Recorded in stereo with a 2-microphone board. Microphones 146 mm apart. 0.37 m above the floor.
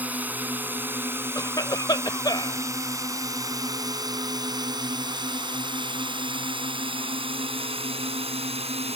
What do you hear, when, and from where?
0.0 s a drone: 10° right (ahead or behind); by 9.0 s 45° right (ahead or behind)
1.4 s a cough: 30° left (ahead or behind)